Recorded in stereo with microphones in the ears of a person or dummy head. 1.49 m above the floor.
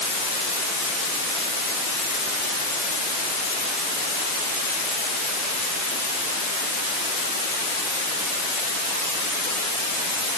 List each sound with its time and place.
Only background noise.